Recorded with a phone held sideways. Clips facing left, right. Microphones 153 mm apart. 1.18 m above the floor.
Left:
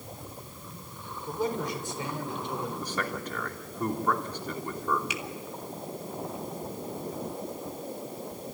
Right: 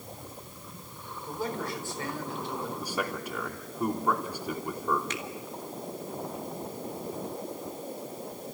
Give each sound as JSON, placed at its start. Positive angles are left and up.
{"t": 1.3, "sound": "a man speaking", "side_deg": 20, "distance_m": 4.5}
{"t": 2.8, "sound": "a man speaking", "side_deg": -10, "distance_m": 3.0}
{"t": 5.1, "sound": "a finger snap", "side_deg": 10, "distance_m": 1.8}